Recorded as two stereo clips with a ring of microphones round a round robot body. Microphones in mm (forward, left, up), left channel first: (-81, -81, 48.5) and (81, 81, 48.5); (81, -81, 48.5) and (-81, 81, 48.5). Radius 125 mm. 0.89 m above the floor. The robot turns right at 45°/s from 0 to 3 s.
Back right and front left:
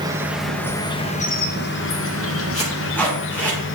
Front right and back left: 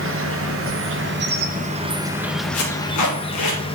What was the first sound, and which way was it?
An insect, 115° left.